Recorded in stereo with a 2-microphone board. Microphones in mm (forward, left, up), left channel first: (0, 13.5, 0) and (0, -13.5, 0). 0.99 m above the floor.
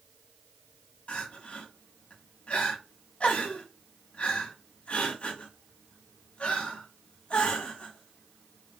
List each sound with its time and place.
1.1 s crying: 50° left (ahead or behind), 1.0 m